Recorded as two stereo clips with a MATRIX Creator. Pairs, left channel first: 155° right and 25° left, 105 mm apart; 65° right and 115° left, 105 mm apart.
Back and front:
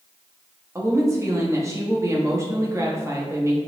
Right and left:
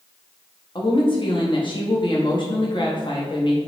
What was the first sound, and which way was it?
A woman speaking, 35° right.